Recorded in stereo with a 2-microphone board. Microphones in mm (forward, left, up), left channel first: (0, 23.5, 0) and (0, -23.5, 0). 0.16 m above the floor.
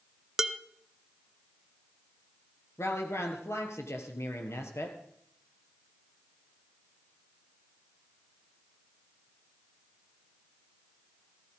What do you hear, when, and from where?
0.4 s dishes clattering: 10° right (ahead or behind), 0.7 m
2.8 s a woman speaking: 70° left (ahead or behind), 3.5 m